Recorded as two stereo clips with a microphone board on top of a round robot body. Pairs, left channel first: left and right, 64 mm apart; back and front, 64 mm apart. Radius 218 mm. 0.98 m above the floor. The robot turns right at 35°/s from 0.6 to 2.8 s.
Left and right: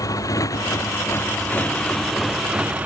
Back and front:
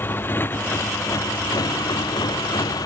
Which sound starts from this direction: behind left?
A motorcycle, at 0.0 s.